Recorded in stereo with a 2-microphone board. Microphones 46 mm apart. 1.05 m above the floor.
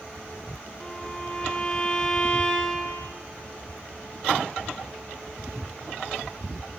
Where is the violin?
20° left (ahead or behind), 1.1 m.